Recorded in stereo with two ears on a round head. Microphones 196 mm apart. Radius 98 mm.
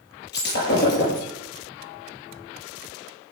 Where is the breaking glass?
55° left (ahead or behind), 7.5 m.